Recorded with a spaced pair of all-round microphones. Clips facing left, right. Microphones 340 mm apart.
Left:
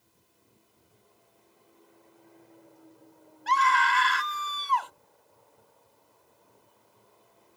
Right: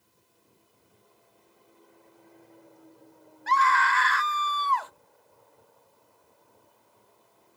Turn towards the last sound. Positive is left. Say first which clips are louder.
# right 1 dB
turn(degrees=45)  # may be behind; listen again after turning